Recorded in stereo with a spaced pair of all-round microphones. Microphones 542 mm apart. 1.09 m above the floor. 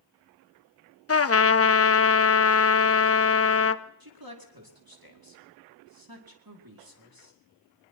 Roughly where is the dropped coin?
No dropped coin in this recording.